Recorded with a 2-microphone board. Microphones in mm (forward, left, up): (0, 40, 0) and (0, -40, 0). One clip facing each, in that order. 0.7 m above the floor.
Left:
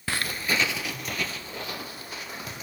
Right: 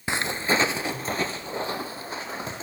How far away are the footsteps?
About 0.6 m.